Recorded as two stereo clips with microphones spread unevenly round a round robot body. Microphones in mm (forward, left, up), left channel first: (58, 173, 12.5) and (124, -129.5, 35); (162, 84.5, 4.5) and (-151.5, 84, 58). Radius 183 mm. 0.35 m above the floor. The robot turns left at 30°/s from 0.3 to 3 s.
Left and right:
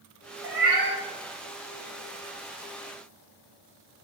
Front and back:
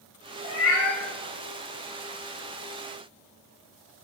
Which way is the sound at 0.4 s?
40° right.